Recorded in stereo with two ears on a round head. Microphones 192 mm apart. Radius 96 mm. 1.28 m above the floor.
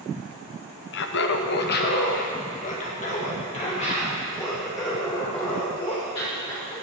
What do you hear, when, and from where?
0.9 s laughter: 55° left (ahead or behind), 0.9 m; by 6.7 s 25° left (ahead or behind), 5 m